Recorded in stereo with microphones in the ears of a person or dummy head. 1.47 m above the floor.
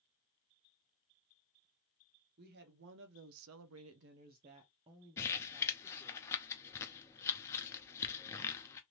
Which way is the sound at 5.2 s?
10° left (ahead or behind).